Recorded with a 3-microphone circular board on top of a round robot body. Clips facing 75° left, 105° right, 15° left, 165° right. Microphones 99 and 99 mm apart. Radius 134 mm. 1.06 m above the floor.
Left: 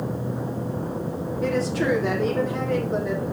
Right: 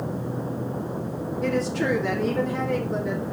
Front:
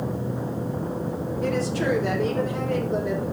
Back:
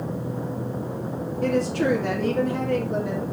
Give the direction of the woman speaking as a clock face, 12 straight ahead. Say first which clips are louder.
Left 1 dB, back 3 dB; 7 o'clock.